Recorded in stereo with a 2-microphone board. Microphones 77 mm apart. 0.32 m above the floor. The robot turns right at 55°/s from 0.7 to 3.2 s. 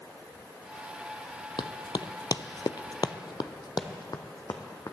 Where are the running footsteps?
75° left (ahead or behind), 0.8 m; by 4.9 s 55° left (ahead or behind), 1.6 m.